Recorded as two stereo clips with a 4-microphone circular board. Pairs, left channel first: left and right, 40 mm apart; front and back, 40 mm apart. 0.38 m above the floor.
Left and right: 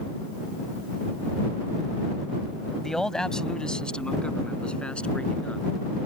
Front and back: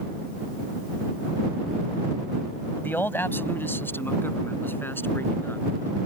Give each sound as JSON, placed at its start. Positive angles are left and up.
{"t": 2.8, "sound": "a man speaking", "azimuth_deg": 15}